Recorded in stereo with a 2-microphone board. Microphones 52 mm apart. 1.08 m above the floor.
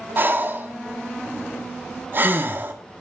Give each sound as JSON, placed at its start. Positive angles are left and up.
{"t": 0.2, "sound": "breathing", "side_deg": -40, "distance_m": 1.3}